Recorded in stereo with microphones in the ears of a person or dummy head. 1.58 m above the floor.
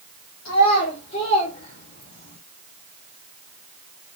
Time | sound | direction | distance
0.5 | a child speaking | 50° left (ahead or behind) | 1.0 m